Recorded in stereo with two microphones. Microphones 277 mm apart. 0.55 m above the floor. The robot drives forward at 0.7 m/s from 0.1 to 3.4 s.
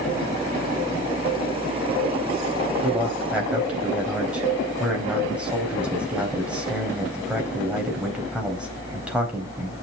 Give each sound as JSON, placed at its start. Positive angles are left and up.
{"t": 2.8, "sound": "a man speaking", "side_deg": -5, "distance_m": 3.0}